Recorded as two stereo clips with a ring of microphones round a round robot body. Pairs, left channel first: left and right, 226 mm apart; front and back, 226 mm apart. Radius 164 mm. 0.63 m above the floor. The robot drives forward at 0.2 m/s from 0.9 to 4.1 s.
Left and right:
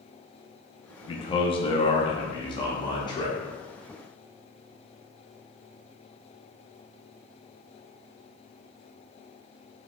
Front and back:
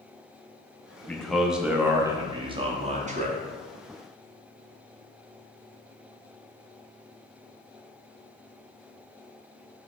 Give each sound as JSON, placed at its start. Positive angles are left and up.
{"t": 1.1, "sound": "a man speaking", "azimuth_deg": 75, "distance_m": 0.6}